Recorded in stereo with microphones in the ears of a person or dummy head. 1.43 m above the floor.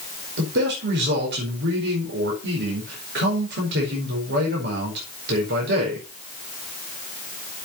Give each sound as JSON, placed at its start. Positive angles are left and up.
{"t": 0.4, "sound": "a man speaking", "side_deg": -60, "distance_m": 5.0}